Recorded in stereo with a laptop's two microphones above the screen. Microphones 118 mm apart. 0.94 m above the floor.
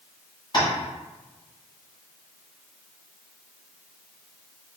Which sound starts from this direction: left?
Tapping, at 0.5 s.